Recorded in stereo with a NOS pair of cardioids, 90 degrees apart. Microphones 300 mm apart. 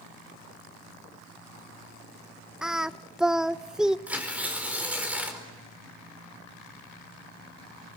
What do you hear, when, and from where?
2.6 s singing: straight ahead, 0.6 m
4.1 s tearing paper: 5° right, 4.5 m